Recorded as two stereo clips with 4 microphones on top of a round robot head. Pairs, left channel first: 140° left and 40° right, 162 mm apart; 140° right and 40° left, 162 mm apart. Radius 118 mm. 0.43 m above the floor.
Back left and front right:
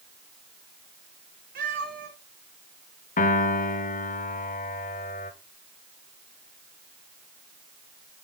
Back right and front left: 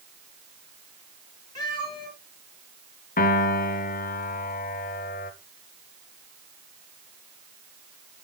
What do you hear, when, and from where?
1.6 s a cat meowing: 75° right, 4 m
3.2 s a piano: straight behind, 1.0 m